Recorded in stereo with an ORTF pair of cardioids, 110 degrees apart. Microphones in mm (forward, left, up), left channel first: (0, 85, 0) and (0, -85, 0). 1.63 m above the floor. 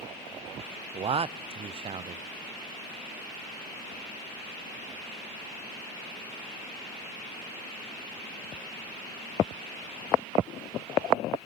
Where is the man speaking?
35° right, 0.7 m.